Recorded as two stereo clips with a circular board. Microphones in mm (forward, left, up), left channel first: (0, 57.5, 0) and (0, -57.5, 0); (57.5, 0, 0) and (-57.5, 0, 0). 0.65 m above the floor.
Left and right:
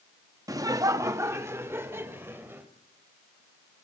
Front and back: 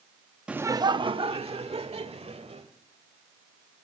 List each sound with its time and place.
0.5 s laughter: 105° right, 0.5 m; by 2.7 s 160° right, 2.5 m